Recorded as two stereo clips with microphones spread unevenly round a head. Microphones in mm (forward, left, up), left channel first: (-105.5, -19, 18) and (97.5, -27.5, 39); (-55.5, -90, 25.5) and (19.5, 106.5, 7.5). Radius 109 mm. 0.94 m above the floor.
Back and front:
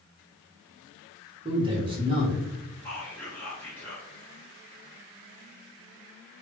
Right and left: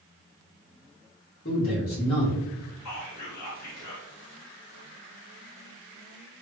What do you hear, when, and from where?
1.4 s a man speaking: 65° right, 1.6 m
2.9 s whispering: 105° right, 1.9 m